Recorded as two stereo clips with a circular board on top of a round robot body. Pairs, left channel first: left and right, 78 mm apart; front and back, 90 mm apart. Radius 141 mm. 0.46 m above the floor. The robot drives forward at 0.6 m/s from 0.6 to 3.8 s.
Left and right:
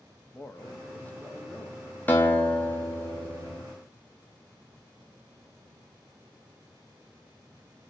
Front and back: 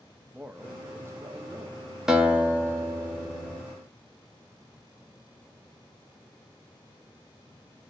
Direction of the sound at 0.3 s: 120° left.